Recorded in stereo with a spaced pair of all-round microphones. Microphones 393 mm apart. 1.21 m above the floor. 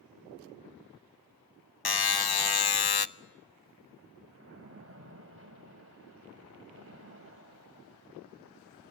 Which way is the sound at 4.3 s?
35° right (ahead or behind).